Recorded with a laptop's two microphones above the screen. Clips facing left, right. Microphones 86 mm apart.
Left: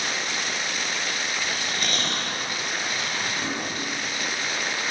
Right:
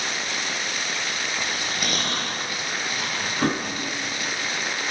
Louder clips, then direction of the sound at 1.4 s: Right 1 dB; 10° right (ahead or behind).